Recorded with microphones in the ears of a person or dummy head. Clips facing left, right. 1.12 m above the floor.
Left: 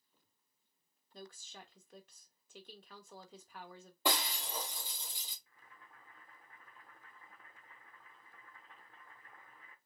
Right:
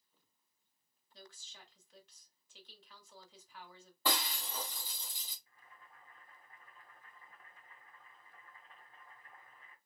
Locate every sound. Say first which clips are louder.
1.1 s a woman speaking: left 6 dB; 40° left (ahead or behind), 0.8 m
4.0 s breaking glass: left 1 dB; 20° left (ahead or behind), 1.3 m
5.5 s boiling: even; 55° left (ahead or behind), 1.1 m